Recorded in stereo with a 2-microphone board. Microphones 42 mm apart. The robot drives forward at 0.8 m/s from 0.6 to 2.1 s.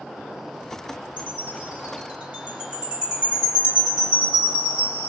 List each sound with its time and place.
1.2 s a chime: 30° right (ahead or behind), 1.8 m; by 5.1 s 20° right (ahead or behind), 2.5 m